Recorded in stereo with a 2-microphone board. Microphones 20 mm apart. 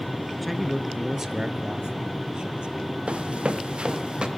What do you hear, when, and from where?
0.4 s a man speaking: 5° left (ahead or behind), 1.3 m; by 2.9 s 55° right (ahead or behind), 3 m
3.1 s running footsteps: 70° right (ahead or behind), 1.7 m; by 4.3 s 50° right (ahead or behind), 3 m